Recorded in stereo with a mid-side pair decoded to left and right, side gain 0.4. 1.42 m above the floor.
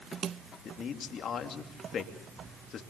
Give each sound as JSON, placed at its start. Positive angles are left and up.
{"t": 0.7, "sound": "a man speaking", "azimuth_deg": 70, "distance_m": 2.5}